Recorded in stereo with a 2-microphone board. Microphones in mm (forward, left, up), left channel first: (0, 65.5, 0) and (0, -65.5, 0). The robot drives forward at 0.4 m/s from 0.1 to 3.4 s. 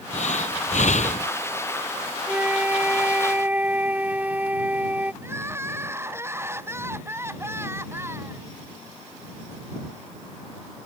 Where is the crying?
20° right (ahead or behind).